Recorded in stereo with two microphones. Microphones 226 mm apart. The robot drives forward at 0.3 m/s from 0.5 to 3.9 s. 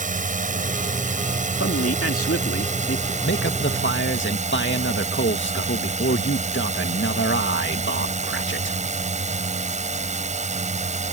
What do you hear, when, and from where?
0.0 s a drone: 35° right (ahead or behind); by 11.1 s 30° right (ahead or behind)
1.6 s a man speaking: 80° left; by 3.1 s 70° left (ahead or behind)
3.2 s a man speaking: 60° left (ahead or behind); by 8.8 s 55° left (ahead or behind)